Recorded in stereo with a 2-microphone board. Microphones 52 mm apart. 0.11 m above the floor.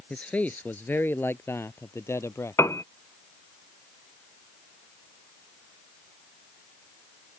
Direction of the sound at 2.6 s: 65° left (ahead or behind).